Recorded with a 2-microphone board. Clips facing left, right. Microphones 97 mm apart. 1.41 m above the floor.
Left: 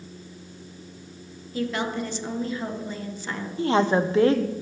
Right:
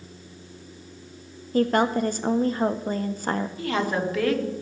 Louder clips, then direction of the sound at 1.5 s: Right 7 dB; 50° right (ahead or behind).